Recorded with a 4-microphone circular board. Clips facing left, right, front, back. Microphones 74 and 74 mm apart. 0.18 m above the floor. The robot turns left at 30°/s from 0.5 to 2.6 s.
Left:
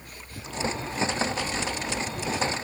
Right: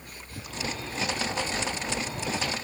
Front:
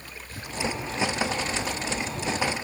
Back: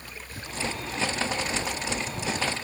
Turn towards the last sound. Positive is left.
No sound to turn to.